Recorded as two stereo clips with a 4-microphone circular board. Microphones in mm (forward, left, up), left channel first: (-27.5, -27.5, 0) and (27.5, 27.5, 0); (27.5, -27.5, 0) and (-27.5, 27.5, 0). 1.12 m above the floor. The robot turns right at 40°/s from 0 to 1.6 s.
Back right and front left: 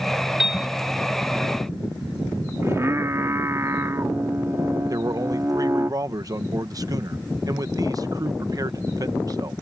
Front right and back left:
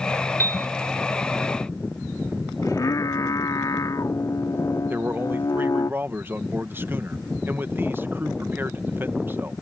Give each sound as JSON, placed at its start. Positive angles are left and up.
{"t": 0.4, "sound": "a piano", "azimuth_deg": -30}
{"t": 2.6, "sound": "singing", "azimuth_deg": -5}
{"t": 4.9, "sound": "a man speaking", "azimuth_deg": 75}